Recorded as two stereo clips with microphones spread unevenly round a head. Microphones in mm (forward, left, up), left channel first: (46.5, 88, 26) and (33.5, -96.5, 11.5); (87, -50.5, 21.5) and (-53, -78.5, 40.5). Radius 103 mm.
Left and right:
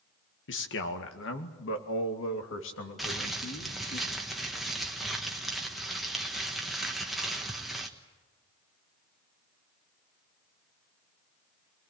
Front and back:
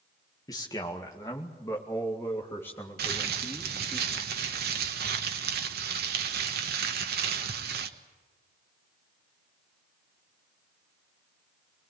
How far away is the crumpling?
About 1.3 m.